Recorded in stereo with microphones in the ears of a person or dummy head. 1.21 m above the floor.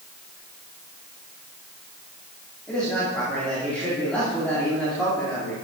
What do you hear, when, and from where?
2.7 s a man speaking: 5° left (ahead or behind), 2.5 m